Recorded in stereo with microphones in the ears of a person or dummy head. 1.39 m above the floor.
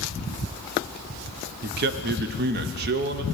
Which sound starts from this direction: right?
A man speaking, at 1.6 s.